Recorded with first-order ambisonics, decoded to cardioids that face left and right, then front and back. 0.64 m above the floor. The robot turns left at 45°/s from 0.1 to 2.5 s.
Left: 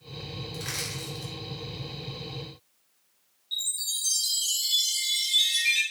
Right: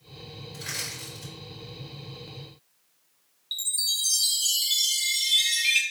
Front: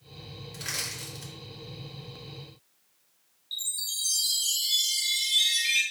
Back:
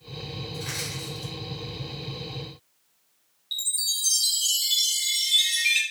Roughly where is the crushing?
Ahead left.